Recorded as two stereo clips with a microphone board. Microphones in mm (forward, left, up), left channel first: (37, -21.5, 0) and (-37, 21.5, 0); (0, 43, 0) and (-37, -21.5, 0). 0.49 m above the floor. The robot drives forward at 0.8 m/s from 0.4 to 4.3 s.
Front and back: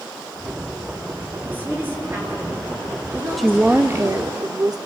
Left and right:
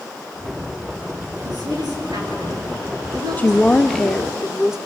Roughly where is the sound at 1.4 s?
Behind right.